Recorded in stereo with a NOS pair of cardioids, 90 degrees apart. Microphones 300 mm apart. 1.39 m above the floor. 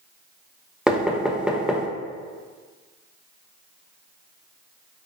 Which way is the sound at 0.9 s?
5° right.